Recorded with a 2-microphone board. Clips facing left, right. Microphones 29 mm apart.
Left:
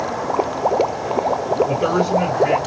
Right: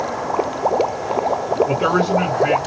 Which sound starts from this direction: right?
A man speaking, at 1.7 s.